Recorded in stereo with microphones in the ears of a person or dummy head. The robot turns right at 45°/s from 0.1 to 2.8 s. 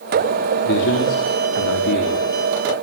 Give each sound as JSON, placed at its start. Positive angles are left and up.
{"t": 0.7, "sound": "a man speaking", "azimuth_deg": 55, "distance_m": 3.5}